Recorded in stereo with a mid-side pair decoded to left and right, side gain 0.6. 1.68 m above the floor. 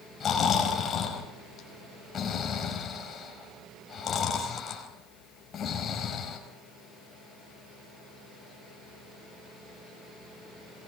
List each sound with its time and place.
0.2 s snoring: 40° left, 5 m